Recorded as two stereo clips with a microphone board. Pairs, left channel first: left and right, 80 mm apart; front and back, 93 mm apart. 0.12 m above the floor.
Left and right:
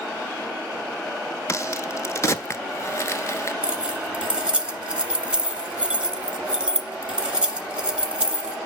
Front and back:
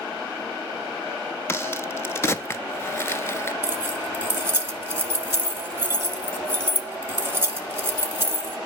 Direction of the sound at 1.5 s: 50° left.